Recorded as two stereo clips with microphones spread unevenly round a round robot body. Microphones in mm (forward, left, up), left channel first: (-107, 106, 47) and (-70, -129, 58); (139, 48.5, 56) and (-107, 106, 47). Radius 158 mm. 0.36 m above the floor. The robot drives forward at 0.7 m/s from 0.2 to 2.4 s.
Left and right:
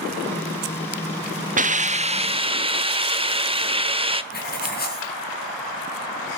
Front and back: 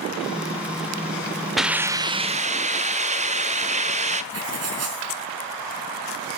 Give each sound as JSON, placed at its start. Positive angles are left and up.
{"t": 1.6, "sound": "a hiss", "azimuth_deg": -105, "distance_m": 1.1}
{"t": 4.3, "sound": "writing", "azimuth_deg": 145, "distance_m": 5.0}